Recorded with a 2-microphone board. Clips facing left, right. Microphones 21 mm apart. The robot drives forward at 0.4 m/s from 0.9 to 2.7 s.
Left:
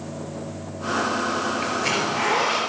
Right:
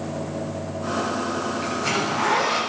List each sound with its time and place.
1.6 s a zipper: 30° left (ahead or behind), 2.5 m; by 2.6 s 25° left (ahead or behind), 3 m